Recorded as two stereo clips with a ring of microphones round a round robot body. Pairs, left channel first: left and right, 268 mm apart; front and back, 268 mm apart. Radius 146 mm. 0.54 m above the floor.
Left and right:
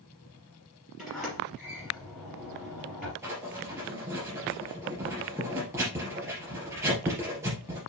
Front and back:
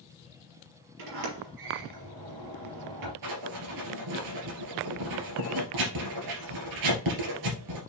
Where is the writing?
170° right, 3 m.